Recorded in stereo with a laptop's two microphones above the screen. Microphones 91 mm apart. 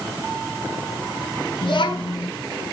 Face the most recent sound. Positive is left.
turn(degrees=60)  # may be behind; listen again after turning